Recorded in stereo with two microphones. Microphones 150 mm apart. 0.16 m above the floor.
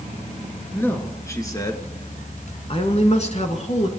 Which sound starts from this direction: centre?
A man speaking, at 0.7 s.